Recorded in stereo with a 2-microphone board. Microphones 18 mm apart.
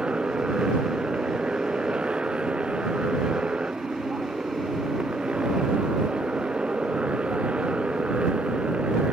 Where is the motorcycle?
65° right (ahead or behind); by 9.1 s 90° right.